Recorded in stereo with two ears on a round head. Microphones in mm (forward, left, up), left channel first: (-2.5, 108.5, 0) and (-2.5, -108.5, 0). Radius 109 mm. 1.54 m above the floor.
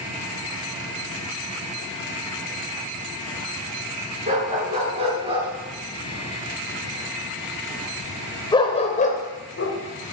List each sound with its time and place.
4.3 s a dog barking: 30° right (ahead or behind), 7 m; by 9.8 s 55° left (ahead or behind), 2.5 m